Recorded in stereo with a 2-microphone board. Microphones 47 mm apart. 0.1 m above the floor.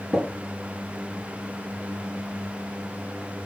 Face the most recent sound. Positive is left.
turn(degrees=-35)  # may be behind; listen again after turning